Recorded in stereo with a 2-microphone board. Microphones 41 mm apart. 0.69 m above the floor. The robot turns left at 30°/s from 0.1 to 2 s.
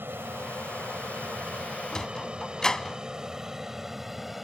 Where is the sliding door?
15° left (ahead or behind).